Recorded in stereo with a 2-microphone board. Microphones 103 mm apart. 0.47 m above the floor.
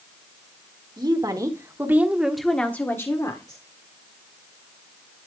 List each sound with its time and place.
1.0 s a woman speaking: 45° right (ahead or behind), 1.7 m; by 3.6 s 40° left (ahead or behind), 1.7 m